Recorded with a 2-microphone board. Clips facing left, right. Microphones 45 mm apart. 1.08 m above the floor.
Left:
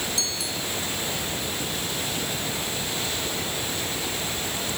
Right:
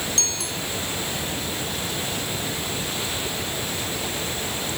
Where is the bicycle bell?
60° right (ahead or behind).